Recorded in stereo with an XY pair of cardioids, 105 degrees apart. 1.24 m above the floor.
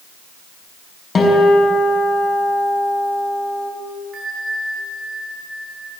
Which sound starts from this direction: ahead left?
A guitar, at 1.1 s.